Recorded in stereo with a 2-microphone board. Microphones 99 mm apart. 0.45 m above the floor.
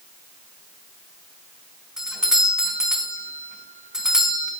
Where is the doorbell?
5° right (ahead or behind), 4 m.